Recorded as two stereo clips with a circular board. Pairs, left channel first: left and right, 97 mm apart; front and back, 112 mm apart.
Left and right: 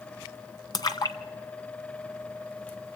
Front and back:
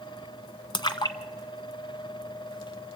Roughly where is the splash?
Ahead left.